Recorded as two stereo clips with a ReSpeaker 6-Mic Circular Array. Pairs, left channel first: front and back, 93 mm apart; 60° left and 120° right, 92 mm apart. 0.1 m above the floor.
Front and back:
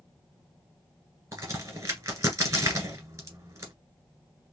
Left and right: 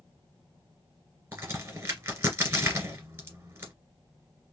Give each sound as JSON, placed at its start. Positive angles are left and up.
{"t": 1.3, "sound": "a crack", "azimuth_deg": -160, "distance_m": 1.9}